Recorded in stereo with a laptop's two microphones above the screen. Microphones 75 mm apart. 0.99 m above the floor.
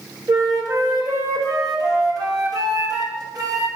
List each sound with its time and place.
0.3 s a flute: 55° right (ahead or behind), 1.4 m